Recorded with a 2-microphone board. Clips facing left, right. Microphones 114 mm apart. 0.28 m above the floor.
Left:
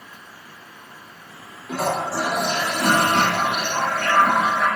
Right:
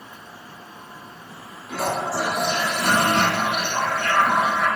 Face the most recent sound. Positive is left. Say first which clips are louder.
# left 1 dB
turn(degrees=55)  # may be behind; listen again after turning